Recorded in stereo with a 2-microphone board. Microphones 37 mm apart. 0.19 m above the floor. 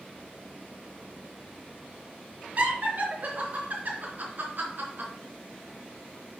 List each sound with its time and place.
2.6 s laughter: 45° right (ahead or behind), 3.5 m; by 5.1 s 60° right (ahead or behind), 3 m